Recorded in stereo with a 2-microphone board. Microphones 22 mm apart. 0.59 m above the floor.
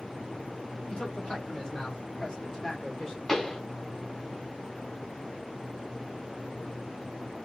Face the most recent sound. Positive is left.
turn(degrees=15)  # may be behind; listen again after turning